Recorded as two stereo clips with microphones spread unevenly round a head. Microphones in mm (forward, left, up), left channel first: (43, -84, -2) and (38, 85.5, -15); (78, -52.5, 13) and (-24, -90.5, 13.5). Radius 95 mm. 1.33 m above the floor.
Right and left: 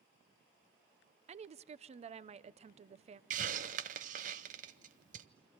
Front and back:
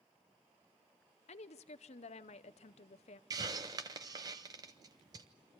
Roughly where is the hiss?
Behind left.